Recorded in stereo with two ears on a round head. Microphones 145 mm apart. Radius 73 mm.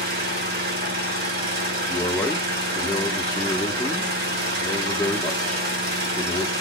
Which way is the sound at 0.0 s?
65° right (ahead or behind).